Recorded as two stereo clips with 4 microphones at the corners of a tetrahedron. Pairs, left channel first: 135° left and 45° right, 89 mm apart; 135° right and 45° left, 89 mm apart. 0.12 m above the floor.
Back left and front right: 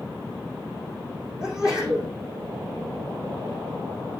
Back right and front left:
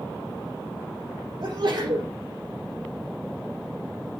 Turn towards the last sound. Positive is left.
turn(degrees=35)